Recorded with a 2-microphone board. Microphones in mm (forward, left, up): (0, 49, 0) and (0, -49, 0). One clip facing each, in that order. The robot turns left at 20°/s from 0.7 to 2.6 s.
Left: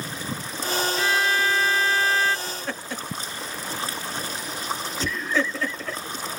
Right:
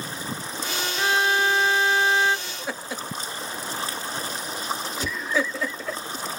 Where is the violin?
35° right (ahead or behind), 0.6 m; by 2.4 s 20° right (ahead or behind), 0.6 m.